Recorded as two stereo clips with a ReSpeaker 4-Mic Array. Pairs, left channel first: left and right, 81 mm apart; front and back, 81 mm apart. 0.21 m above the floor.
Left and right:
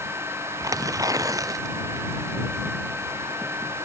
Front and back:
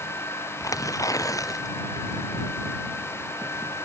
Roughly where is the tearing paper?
Ahead right.